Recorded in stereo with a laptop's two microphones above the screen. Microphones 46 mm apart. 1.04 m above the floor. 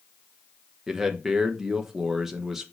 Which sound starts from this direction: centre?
A man speaking, at 0.9 s.